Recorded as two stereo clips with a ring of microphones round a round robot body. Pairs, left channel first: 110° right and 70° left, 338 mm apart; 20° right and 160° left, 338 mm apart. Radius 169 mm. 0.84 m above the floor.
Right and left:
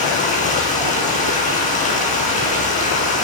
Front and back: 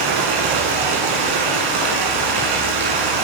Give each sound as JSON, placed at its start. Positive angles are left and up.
{"t": 0.0, "sound": "running water", "azimuth_deg": 175, "distance_m": 7.5}